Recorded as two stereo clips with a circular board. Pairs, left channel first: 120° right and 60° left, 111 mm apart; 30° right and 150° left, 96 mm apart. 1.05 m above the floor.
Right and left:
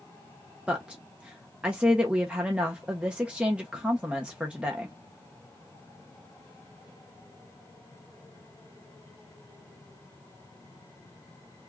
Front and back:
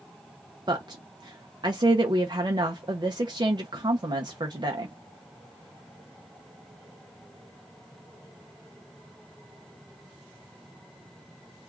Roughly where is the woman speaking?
Behind left.